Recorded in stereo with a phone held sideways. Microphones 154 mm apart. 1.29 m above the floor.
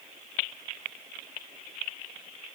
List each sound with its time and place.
Only background noise.